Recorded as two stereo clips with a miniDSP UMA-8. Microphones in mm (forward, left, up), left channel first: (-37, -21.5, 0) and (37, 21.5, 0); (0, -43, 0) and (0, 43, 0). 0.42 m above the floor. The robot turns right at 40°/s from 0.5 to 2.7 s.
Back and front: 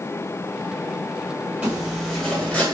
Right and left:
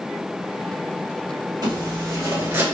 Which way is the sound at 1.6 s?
100° left.